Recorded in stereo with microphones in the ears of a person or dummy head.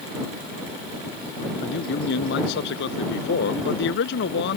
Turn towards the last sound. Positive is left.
turn(degrees=65)  # may be behind; listen again after turning